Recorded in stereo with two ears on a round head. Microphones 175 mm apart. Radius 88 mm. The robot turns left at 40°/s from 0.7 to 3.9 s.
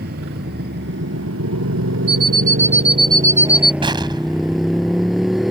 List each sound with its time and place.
0.0 s a motorcycle: 50° right; by 5.5 s straight behind
2.1 s an alarm clock: 115° right; by 3.7 s straight behind
3.8 s an explosion: 25° right (ahead or behind)